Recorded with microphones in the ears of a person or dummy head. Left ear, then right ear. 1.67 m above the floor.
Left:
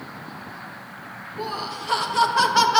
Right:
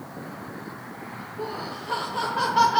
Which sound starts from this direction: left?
Laughter, at 1.4 s.